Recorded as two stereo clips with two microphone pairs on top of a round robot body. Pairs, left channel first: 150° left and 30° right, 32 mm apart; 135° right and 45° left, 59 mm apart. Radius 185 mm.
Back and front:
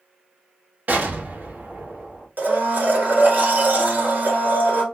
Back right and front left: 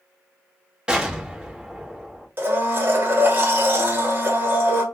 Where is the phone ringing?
No phone ringing in this recording.